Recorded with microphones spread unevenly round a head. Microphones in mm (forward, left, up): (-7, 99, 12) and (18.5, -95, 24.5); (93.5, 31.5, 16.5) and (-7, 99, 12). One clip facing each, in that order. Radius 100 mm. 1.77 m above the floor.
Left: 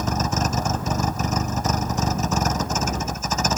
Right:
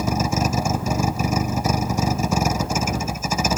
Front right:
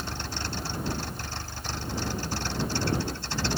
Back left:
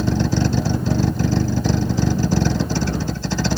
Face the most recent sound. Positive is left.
turn(degrees=-165)